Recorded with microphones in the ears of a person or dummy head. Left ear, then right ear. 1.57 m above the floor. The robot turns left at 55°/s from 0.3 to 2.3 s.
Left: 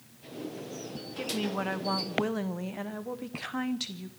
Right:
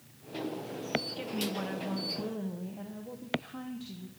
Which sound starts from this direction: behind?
A woman speaking, at 1.2 s.